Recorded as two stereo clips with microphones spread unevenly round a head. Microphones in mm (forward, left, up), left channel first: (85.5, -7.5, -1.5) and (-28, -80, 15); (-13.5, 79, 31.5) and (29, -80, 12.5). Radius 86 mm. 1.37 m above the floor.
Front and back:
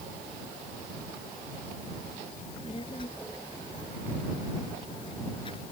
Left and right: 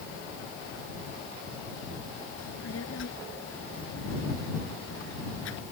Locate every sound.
2.4 s a child speaking: 100° left